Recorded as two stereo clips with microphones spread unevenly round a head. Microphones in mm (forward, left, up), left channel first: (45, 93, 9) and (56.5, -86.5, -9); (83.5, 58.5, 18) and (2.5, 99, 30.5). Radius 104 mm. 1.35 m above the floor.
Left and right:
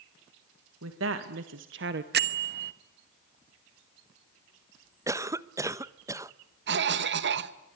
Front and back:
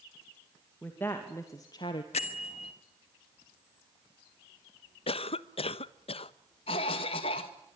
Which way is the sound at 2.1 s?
55° right.